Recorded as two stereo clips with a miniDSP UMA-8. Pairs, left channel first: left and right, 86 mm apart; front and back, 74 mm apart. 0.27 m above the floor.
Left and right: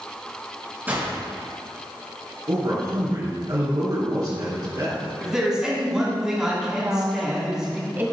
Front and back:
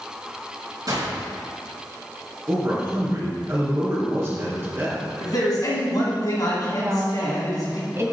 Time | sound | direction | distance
0.9 | a gunshot | 155° right | 3 m
2.5 | a man speaking | 125° right | 3 m
5.2 | a man speaking | 10° right | 3 m
6.8 | a woman speaking | 150° right | 1.9 m